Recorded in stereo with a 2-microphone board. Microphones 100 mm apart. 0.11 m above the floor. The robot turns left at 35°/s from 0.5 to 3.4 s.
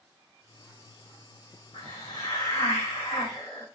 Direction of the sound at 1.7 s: 60° left.